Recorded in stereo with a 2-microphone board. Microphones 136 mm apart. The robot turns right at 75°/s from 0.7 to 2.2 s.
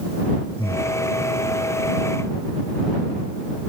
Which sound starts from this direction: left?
Breathing, at 0.6 s.